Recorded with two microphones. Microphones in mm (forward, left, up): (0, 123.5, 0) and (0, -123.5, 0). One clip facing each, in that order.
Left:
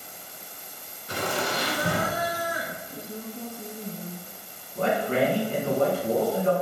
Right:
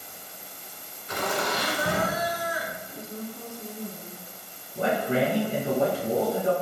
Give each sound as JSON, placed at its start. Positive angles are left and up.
{"t": 1.1, "sound": "laughter", "side_deg": 35, "distance_m": 1.7}
{"t": 2.9, "sound": "a woman speaking", "side_deg": 20, "distance_m": 1.1}
{"t": 4.8, "sound": "a man speaking", "side_deg": -15, "distance_m": 1.2}